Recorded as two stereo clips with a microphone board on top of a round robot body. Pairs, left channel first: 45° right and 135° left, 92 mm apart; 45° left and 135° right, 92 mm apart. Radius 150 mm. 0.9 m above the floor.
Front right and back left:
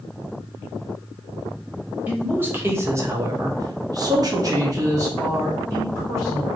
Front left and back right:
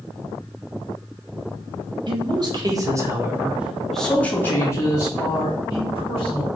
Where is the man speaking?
155° right, 1.2 m; by 6.5 s 70° left, 1.7 m.